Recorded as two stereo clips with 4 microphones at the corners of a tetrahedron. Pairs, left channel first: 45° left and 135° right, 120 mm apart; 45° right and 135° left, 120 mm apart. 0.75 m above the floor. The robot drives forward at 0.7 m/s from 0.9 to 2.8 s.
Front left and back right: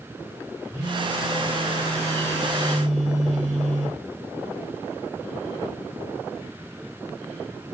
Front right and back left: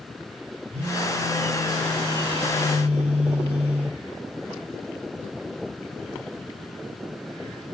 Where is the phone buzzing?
165° left, 2.5 m; by 4.0 s 170° left, 4 m.